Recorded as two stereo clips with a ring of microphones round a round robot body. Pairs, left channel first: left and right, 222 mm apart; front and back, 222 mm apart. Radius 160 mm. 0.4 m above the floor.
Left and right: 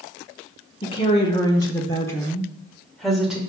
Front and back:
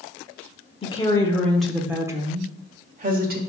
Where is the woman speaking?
45° left, 1.5 m; by 3.4 s 175° right, 1.7 m.